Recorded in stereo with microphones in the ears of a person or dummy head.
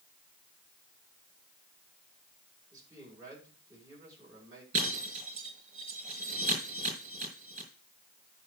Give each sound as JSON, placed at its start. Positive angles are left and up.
{"t": 2.7, "sound": "a man speaking", "side_deg": -20, "distance_m": 7.5}
{"t": 4.7, "sound": "breaking glass", "side_deg": -35, "distance_m": 5.0}